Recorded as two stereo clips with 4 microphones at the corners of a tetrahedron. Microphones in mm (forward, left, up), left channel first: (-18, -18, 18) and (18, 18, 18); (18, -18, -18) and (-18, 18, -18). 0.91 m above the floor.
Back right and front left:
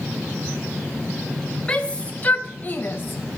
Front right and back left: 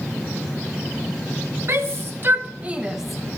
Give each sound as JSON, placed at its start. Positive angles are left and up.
{"t": 1.7, "sound": "a shout", "azimuth_deg": 155, "distance_m": 1.3}